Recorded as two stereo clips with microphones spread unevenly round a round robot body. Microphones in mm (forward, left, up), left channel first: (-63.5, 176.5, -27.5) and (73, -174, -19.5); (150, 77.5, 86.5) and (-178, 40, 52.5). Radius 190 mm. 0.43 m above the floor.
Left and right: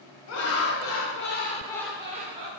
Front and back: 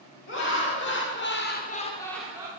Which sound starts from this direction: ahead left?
Laughter, at 0.3 s.